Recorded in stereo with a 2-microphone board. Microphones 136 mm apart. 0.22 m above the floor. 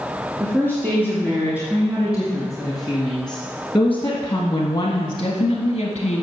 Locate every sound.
0.4 s a woman speaking: 20° right (ahead or behind), 3 m; by 6.2 s 55° left (ahead or behind), 1.6 m